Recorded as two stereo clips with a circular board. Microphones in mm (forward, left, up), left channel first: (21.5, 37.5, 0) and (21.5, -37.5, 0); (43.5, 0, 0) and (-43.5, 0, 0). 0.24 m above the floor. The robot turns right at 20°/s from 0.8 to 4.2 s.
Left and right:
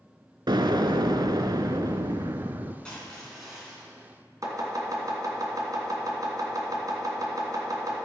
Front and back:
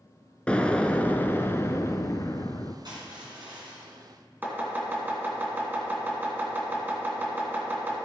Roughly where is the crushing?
Behind.